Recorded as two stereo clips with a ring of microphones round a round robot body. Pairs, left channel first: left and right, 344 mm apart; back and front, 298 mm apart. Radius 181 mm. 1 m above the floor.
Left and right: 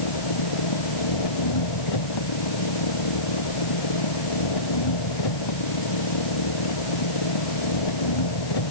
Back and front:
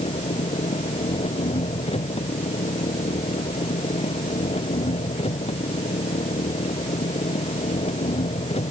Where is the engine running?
110° left.